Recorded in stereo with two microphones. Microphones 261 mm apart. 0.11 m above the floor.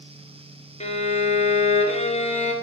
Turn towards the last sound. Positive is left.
turn(degrees=25)  # may be behind; listen again after turning